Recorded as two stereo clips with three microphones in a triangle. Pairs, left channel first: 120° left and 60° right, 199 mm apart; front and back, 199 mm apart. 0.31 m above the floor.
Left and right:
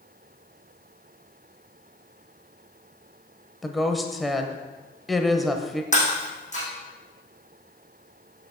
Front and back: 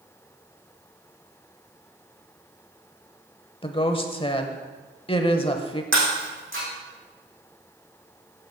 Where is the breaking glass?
175° left, 4.5 m.